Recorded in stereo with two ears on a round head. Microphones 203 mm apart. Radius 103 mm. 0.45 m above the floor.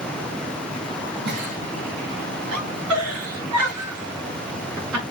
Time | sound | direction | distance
1.2 | a giggle | 80° right | 2.5 m